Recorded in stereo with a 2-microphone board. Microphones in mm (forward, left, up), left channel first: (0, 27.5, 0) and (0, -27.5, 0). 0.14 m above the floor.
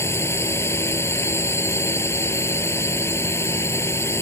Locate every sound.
0.0 s a drone: 55° left (ahead or behind)